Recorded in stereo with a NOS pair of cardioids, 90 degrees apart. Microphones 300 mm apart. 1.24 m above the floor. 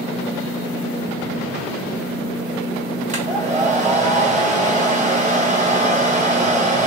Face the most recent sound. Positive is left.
turn(degrees=-25)